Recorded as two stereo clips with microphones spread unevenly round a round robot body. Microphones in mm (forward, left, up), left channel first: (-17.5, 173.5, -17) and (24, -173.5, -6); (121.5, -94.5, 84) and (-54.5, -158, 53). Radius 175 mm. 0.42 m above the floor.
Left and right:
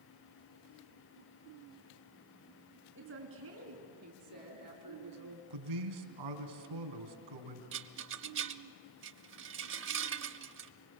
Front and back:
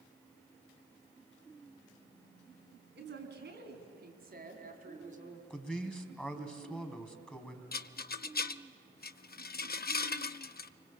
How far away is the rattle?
About 0.7 m.